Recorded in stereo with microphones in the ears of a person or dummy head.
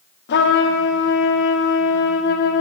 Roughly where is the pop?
No pop in this recording.